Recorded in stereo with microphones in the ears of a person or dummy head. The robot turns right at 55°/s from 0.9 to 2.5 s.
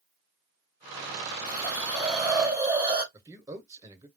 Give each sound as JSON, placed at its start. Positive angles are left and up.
{"t": 1.5, "sound": "a hiss", "azimuth_deg": 150, "distance_m": 1.8}
{"t": 3.1, "sound": "a man speaking", "side_deg": -20, "distance_m": 1.2}